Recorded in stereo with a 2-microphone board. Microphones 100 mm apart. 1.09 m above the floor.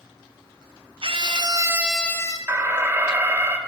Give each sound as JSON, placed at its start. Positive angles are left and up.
{"t": 1.0, "sound": "a scream", "side_deg": -60, "distance_m": 1.0}
{"t": 2.5, "sound": "an alarm", "side_deg": -25, "distance_m": 1.1}